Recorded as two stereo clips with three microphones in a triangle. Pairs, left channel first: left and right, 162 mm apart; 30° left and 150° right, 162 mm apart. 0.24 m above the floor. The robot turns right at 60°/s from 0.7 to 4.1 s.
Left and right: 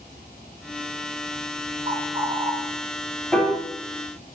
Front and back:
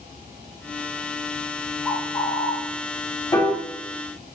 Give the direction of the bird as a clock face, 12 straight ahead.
2 o'clock.